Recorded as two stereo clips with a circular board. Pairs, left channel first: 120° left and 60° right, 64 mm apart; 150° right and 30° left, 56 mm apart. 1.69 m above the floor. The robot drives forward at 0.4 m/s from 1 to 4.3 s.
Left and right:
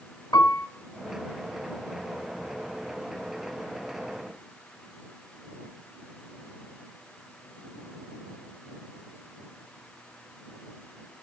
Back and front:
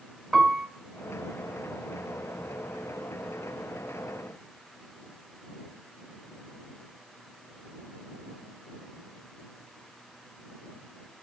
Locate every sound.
0.3 s a piano: 130° left, 2.5 m